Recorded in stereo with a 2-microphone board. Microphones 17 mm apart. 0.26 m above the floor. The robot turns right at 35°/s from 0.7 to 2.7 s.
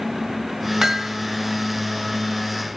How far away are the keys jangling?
I don't hear keys jangling.